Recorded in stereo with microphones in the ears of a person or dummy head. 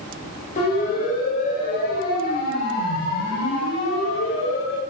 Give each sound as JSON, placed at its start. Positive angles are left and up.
{"t": 0.6, "sound": "a siren", "side_deg": 35, "distance_m": 8.5}